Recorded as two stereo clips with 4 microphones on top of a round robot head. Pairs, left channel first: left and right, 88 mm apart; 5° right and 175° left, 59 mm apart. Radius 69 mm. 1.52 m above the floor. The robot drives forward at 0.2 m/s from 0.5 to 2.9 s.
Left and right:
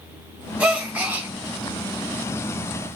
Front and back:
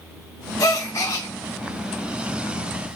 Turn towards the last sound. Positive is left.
turn(degrees=-95)